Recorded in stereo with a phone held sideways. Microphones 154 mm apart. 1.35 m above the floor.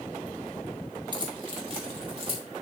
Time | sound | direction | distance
1.1 | keys jangling | 30° right (ahead or behind) | 1.2 m